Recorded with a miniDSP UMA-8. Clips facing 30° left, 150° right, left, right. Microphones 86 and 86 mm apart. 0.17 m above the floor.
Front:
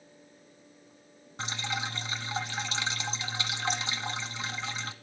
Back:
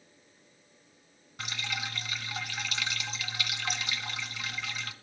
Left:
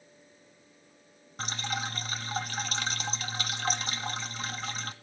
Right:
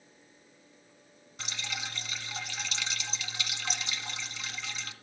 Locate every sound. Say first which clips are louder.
1.4 s dripping: front 3 dB, left 6 dB; 80° left, 1.1 m